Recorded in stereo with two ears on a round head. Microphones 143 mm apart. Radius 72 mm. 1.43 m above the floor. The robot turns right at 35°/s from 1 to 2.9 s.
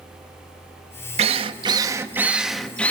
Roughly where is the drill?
Ahead right.